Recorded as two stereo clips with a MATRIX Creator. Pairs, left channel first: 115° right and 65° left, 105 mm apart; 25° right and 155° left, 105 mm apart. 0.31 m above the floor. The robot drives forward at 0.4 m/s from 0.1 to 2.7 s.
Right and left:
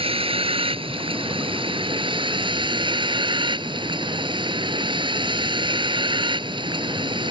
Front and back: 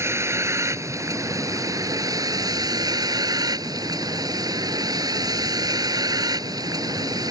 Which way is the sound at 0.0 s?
95° left.